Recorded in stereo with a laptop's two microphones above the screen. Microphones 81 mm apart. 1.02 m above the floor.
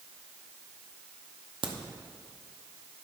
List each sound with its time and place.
1.6 s a crack: 70° right (ahead or behind), 0.7 m